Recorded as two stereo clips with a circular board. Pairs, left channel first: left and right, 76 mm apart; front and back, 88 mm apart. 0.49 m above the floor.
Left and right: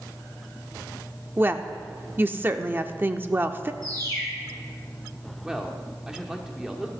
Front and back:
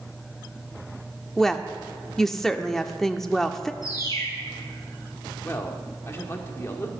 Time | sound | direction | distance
1.4 | a woman speaking | 85° right | 0.7 m
3.8 | a bird | 50° right | 6 m
5.4 | a man speaking | 15° right | 1.5 m